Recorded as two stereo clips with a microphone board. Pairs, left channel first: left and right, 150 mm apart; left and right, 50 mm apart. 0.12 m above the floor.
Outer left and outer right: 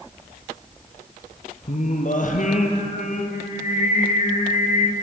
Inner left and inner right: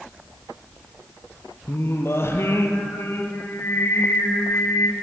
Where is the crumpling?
No crumpling in this recording.